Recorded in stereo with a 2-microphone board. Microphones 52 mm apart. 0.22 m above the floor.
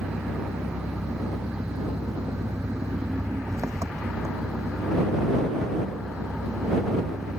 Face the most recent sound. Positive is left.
turn(degrees=-80)